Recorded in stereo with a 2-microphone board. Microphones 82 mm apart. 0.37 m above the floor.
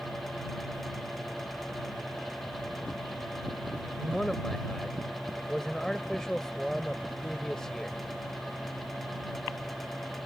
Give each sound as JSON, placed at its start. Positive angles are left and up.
{"t": 4.0, "sound": "a man speaking", "side_deg": 5}